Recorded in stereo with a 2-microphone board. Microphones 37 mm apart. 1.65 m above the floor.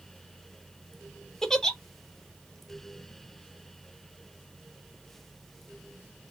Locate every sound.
1.4 s a giggle: 15° left (ahead or behind), 0.8 m